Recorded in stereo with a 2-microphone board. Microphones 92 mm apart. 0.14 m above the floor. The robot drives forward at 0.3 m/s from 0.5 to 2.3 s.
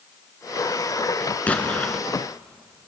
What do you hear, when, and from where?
1.5 s an explosion: 15° left (ahead or behind), 1.8 m